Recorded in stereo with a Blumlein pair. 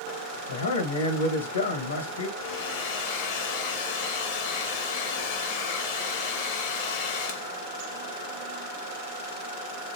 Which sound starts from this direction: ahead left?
A hair dryer, at 2.4 s.